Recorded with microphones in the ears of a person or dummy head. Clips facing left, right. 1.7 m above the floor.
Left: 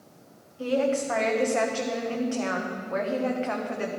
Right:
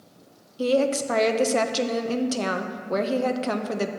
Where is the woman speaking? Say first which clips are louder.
Right 3 dB; 50° right (ahead or behind), 0.7 m.